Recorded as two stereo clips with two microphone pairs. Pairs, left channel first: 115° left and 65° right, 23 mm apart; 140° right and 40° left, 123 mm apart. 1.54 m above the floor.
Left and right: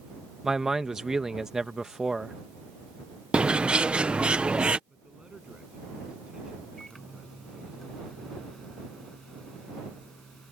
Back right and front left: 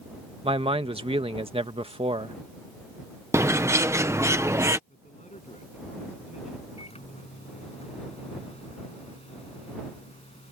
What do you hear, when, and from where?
0.4 s a man speaking: straight ahead
3.3 s a bird: 30° right
4.9 s a man speaking: 120° right
6.8 s a microwave: 175° right